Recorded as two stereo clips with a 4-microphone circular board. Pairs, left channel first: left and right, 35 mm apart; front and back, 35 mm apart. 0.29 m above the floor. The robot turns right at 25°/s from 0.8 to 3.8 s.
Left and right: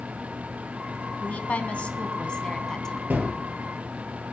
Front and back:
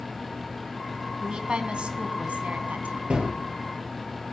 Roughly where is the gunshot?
Behind right.